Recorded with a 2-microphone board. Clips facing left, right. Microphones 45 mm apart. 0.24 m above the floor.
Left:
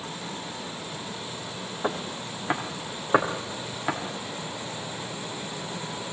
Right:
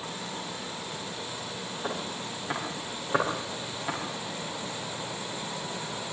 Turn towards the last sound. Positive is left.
turn(degrees=30)  # may be behind; listen again after turning